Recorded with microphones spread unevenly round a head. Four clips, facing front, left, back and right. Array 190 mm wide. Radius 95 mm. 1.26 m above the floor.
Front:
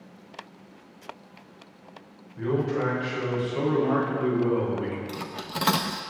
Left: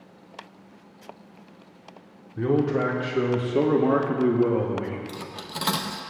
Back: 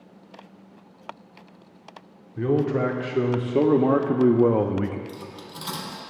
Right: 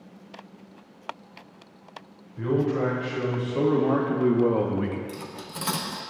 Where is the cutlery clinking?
10° left, 0.7 m.